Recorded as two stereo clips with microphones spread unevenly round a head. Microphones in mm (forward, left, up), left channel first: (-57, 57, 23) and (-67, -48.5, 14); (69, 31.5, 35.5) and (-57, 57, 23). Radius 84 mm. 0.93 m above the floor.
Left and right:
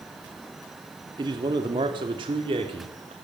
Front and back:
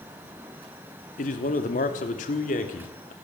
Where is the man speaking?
40° right, 2.5 m; by 3.1 s 45° right, 3.5 m.